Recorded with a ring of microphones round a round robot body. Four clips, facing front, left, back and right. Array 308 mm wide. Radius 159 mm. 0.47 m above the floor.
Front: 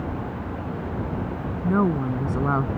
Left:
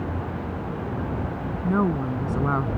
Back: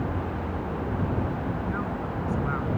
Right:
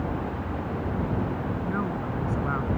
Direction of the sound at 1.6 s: 30° left.